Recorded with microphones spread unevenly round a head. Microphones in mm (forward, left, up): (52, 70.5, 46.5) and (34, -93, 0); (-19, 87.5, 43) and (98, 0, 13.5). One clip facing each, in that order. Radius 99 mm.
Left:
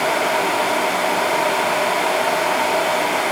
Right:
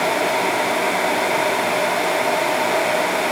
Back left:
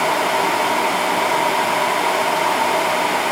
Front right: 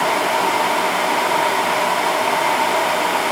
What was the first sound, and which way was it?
Only background noise.